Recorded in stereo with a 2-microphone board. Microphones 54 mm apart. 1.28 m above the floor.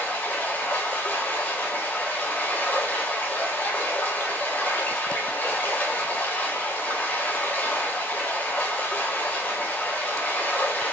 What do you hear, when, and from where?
0.0 s running water: 30° left (ahead or behind), 1.1 m